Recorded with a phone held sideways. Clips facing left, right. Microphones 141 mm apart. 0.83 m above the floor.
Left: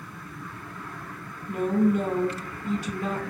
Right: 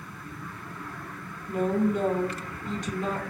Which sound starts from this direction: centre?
A woman speaking, at 1.5 s.